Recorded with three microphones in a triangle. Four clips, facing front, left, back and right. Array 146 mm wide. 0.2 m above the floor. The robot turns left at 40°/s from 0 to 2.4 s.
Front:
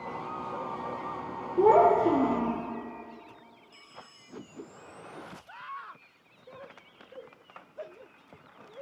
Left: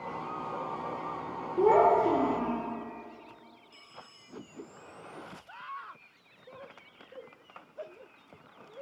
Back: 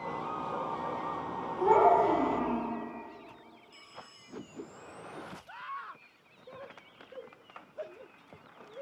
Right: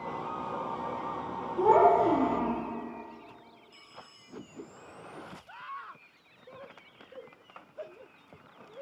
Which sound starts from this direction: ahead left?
A child speaking, at 1.6 s.